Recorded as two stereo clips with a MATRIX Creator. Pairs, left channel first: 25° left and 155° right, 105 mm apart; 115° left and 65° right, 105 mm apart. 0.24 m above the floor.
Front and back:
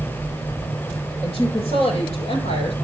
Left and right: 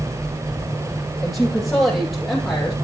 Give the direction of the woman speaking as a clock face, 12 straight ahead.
11 o'clock.